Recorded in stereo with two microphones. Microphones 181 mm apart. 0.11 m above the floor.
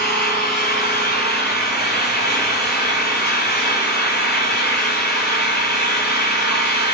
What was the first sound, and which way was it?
An engine running, 75° left (ahead or behind).